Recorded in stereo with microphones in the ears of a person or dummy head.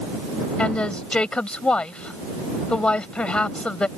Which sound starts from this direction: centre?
A woman speaking, at 0.6 s.